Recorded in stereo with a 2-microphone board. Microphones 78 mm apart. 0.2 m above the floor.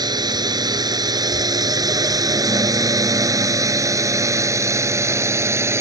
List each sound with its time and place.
0.0 s a drone: 60° right (ahead or behind); by 5.8 s 35° right (ahead or behind)